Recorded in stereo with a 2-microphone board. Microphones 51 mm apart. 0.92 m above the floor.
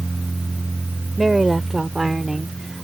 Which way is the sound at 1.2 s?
10° right (ahead or behind).